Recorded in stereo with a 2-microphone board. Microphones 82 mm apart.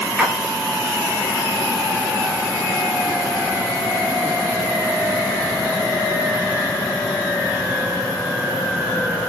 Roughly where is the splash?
Centre.